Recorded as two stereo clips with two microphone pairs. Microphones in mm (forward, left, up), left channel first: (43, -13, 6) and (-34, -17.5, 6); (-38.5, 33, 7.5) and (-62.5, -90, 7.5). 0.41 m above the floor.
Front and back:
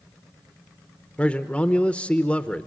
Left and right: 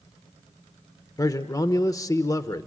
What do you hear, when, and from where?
1.2 s a man speaking: 55° left, 0.8 m